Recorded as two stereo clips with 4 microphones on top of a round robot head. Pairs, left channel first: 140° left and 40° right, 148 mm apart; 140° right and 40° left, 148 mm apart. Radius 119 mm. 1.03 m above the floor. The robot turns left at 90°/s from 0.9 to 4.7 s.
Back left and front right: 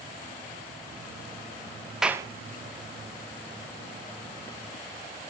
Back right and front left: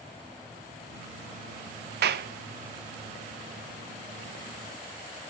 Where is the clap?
45° left, 0.6 m; by 2.3 s 25° left, 0.6 m.